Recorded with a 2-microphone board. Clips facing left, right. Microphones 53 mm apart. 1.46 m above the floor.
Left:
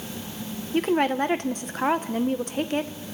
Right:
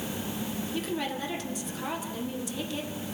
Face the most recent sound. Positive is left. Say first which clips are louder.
# left 12 dB
turn(degrees=50)  # may be behind; listen again after turning